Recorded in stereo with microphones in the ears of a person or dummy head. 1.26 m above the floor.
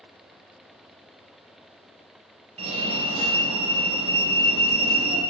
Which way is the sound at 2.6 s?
30° right (ahead or behind).